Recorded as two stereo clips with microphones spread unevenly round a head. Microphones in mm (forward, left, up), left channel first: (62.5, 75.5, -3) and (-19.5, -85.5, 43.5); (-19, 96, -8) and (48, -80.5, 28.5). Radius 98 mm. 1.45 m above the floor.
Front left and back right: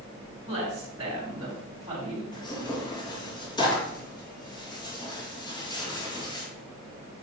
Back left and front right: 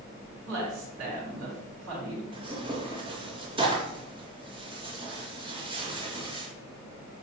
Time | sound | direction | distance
0.5 | a woman speaking | 50° right | 3.5 m
2.3 | tearing paper | 5° right | 2 m